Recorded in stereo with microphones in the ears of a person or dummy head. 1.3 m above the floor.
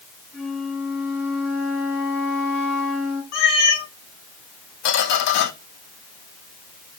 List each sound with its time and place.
0.3 s a flute: 5° right (ahead or behind), 3 m
3.3 s a cat meowing: 60° left (ahead or behind), 1.7 m
4.8 s a squeak: 60° left (ahead or behind), 0.8 m